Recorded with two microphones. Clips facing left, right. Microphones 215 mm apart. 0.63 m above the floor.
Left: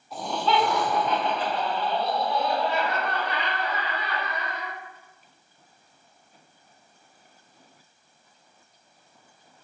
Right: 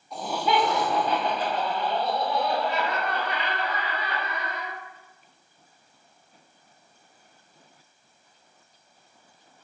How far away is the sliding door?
I don't hear a sliding door.